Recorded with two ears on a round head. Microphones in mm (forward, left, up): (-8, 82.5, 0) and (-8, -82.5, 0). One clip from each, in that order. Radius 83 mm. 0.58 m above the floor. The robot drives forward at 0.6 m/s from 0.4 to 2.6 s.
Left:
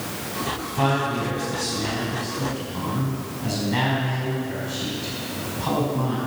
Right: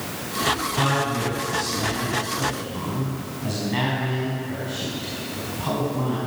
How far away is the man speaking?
About 5.5 m.